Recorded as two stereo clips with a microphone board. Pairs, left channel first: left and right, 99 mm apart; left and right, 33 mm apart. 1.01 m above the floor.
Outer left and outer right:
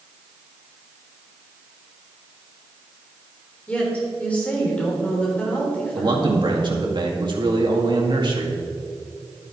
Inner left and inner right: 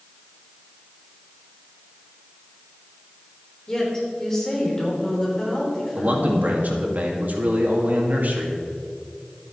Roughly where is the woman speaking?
Centre.